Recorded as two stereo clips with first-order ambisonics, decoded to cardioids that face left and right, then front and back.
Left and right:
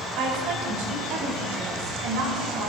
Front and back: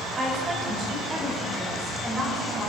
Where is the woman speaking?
110° right, 6.5 m; by 2.7 s 105° right, 9.5 m.